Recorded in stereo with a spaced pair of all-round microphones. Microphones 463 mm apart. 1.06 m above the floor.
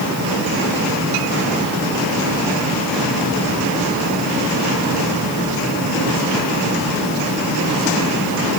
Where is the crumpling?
I don't hear crumpling.